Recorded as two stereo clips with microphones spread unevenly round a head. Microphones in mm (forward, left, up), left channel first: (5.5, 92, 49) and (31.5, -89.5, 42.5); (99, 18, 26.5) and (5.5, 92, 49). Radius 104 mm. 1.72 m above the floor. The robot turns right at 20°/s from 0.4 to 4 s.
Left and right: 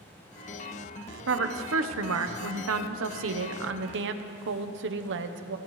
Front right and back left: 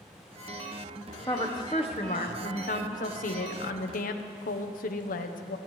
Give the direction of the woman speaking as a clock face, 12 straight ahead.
4 o'clock.